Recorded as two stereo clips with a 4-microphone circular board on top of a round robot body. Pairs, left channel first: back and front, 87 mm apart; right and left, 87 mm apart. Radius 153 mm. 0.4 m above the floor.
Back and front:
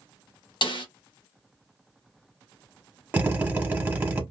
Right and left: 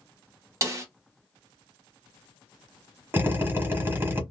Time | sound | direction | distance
0.6 | a snare drum | 145° left | 0.8 m
3.1 | a drill | 55° left | 1.3 m